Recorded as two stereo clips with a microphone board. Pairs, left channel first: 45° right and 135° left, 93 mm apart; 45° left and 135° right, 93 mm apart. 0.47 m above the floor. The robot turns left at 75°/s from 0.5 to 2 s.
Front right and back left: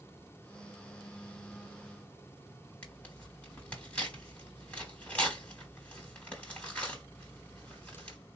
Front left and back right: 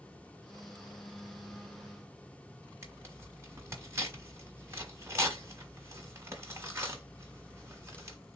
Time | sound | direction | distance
2.8 | tearing paper | 105° right | 1.1 m